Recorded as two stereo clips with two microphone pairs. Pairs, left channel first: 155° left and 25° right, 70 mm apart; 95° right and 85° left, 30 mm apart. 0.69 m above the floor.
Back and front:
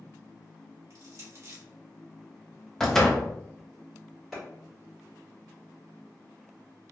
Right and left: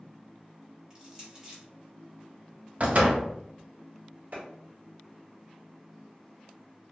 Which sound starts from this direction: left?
A door slam, at 2.8 s.